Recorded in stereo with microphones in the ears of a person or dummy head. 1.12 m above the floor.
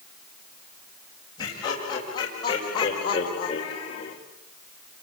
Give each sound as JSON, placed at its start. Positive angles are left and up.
{"t": 1.4, "sound": "laughter", "side_deg": 30, "distance_m": 6.0}